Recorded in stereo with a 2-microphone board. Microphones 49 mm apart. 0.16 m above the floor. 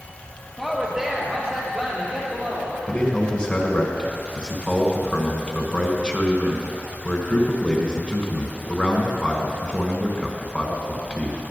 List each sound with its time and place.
0.6 s a woman speaking: 5° right (ahead or behind), 3 m; by 2.8 s 35° right (ahead or behind), 5.5 m
2.9 s a man speaking: 20° left (ahead or behind), 1.6 m